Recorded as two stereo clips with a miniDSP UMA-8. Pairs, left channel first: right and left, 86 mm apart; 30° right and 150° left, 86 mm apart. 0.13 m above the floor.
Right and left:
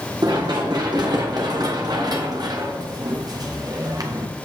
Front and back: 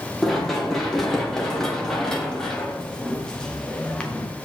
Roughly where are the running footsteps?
Ahead left.